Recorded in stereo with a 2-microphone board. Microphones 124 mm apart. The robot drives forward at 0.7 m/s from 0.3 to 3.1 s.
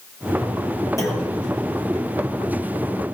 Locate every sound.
1.0 s a clunk: 25° left (ahead or behind), 5.5 m; by 1.3 s 20° left (ahead or behind), 5.5 m